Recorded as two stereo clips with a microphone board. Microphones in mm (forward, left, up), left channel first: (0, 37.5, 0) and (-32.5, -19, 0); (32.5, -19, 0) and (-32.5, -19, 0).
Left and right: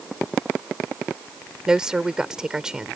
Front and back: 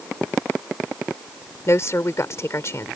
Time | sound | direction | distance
1.7 | a woman speaking | 40° right | ?